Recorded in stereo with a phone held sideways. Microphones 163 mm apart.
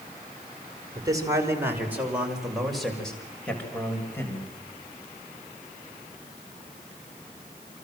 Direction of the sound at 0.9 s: 25° right (ahead or behind).